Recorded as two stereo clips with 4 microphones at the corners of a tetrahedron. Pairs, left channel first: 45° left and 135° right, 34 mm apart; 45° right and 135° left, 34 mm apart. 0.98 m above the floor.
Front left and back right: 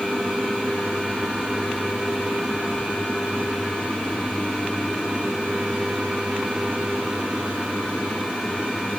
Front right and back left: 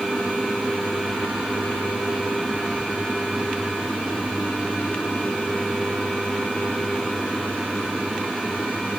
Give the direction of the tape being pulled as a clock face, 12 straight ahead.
No tape being pulled in this recording.